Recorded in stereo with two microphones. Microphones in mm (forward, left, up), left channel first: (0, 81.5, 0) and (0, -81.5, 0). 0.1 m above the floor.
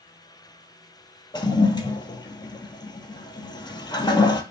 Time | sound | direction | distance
1.3 | a toilet flushing | 25° left (ahead or behind) | 0.5 m